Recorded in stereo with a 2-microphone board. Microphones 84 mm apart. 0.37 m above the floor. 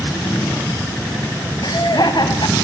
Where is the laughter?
60° left (ahead or behind), 2.5 m.